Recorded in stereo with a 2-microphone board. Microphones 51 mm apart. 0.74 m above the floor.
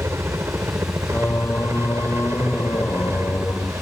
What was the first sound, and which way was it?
A helicopter, 60° right (ahead or behind).